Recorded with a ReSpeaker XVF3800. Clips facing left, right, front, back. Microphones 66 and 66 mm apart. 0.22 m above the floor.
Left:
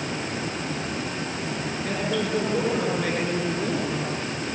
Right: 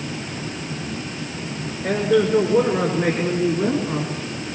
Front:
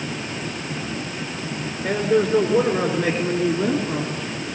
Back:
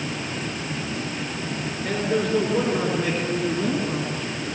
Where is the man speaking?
75° right, 3.5 m; by 4.2 s 80° right, 2.5 m.